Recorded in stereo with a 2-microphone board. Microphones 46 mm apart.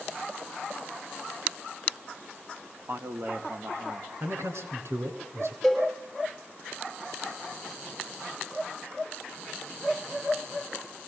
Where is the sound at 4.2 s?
70° right (ahead or behind), 4 m.